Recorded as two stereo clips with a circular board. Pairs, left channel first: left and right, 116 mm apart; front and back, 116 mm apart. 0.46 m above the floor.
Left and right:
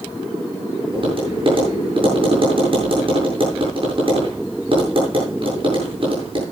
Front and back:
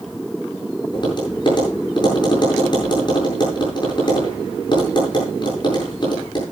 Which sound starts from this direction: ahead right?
Tapping, at 0.9 s.